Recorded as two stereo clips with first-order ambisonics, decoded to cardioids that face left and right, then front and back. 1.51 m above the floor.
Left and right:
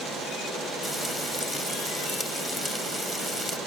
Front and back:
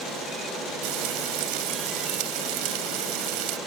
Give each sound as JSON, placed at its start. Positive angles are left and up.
{"t": 0.8, "sound": "frying", "azimuth_deg": 180}